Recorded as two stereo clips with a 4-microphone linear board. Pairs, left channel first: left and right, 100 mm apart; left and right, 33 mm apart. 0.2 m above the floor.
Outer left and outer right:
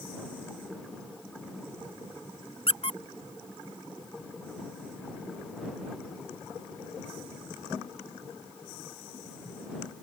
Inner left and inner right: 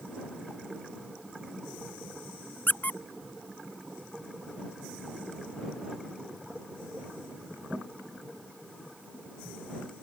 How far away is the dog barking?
No dog barking in this recording.